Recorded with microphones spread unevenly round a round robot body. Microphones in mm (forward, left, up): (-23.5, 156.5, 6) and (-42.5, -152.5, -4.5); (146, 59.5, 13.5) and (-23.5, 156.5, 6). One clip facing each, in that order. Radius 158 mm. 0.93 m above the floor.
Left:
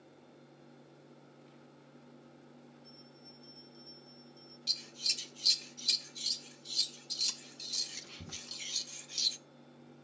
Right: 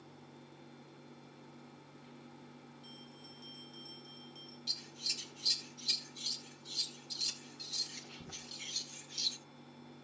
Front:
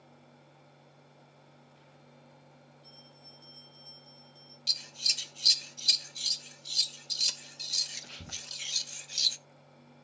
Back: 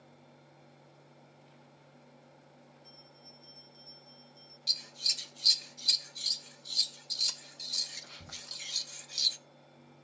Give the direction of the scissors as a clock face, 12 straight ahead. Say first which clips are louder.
Right 1 dB, even; 11 o'clock.